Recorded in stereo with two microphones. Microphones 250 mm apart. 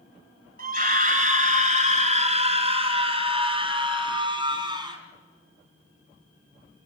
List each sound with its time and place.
0.6 s a scream: 35° right (ahead or behind), 1.7 m; by 5.0 s 15° right (ahead or behind), 3.5 m